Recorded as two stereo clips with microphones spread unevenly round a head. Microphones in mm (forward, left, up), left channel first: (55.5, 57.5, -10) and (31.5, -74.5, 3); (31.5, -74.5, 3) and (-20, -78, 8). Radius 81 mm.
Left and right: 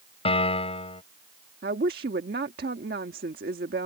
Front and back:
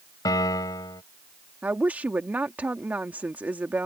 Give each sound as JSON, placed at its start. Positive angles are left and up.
{"t": 0.2, "sound": "a piano", "azimuth_deg": 30}
{"t": 1.6, "sound": "a woman speaking", "azimuth_deg": -120}